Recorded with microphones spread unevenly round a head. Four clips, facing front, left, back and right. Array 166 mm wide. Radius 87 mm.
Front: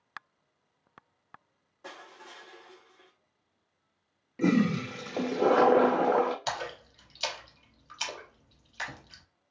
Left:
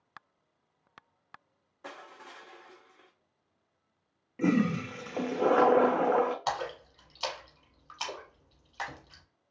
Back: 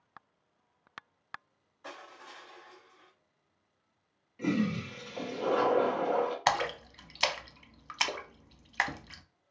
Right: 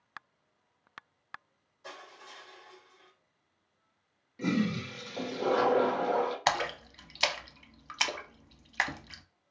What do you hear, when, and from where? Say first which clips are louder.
1.8 s crushing: left 2 dB, even; 55° left, 0.8 m
4.4 s a toilet flushing: left 4 dB, front 5 dB; 20° left, 0.6 m
6.5 s a splash: right 3 dB, back 6 dB; 130° right, 0.7 m